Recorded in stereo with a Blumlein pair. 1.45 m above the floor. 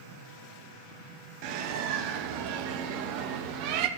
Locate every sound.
1.4 s a bird: 45° right, 1.3 m